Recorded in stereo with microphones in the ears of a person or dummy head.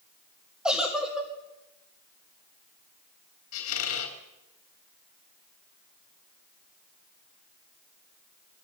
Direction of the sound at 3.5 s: 75° left (ahead or behind).